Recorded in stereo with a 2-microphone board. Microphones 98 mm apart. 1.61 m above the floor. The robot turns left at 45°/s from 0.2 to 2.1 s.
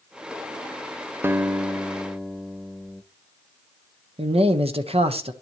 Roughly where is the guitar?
Behind right.